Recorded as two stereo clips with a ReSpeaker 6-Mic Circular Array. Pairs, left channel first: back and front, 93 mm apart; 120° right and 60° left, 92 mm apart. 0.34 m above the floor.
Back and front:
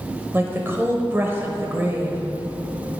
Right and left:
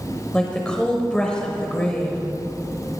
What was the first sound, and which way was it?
A woman speaking, 50° right.